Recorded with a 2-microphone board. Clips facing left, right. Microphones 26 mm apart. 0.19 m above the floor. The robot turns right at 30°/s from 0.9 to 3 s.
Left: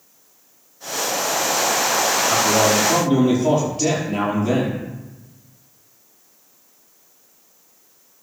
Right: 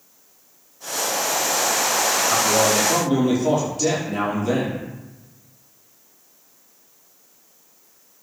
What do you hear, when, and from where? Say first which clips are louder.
2.3 s a man speaking: left 2 dB; 60° left (ahead or behind), 5 m; by 4.8 s 40° left (ahead or behind), 5 m